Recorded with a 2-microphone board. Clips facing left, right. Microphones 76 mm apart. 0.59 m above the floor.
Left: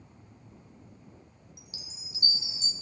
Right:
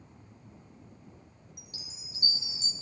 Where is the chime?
45° right (ahead or behind), 1.2 m.